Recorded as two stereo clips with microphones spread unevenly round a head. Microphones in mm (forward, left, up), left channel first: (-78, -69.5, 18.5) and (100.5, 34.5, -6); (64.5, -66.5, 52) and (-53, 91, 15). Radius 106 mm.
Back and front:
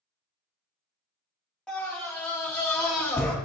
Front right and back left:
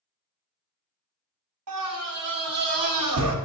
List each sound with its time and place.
1.7 s a scream: 125° left, 1.5 m